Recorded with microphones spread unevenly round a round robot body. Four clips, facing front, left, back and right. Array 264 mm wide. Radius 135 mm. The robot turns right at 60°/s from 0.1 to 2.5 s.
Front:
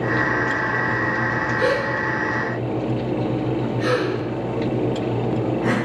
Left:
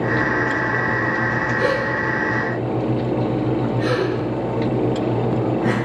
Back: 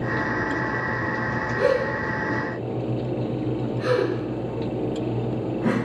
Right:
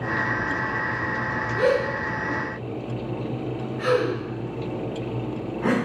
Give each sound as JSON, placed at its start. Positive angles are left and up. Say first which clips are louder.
{"t": 1.6, "sound": "a gasp", "louder": "right 2 dB, back 1 dB", "azimuth_deg": -150, "distance_m": 2.0}